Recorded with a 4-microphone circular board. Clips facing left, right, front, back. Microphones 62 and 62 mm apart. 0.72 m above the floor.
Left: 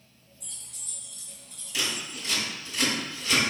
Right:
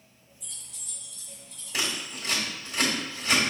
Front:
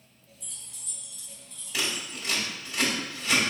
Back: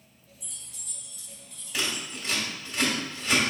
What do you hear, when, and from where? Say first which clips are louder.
0.4 s keys jangling: right 1 dB, even; 110° left, 2.0 m; by 2.2 s 100° left, 3 m
1.7 s scissors: right 1 dB, even; 85° right, 1.6 m